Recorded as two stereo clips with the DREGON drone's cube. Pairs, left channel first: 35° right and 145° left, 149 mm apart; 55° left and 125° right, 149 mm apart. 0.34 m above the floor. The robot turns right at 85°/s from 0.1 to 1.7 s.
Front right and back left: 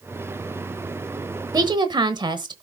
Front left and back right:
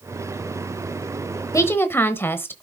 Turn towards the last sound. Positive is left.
turn(degrees=115)